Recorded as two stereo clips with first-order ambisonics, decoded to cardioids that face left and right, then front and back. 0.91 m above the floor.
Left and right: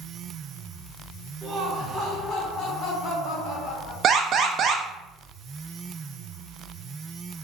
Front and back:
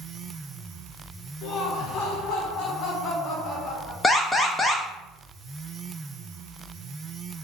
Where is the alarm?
70° right, 0.5 m.